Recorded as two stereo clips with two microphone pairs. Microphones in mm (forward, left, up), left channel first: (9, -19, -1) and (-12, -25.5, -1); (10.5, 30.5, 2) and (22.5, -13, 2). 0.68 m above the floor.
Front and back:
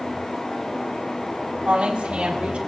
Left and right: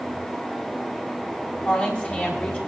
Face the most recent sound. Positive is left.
turn(degrees=160)